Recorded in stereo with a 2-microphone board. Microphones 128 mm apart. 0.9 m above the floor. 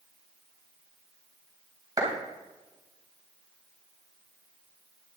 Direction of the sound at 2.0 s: 25° right (ahead or behind).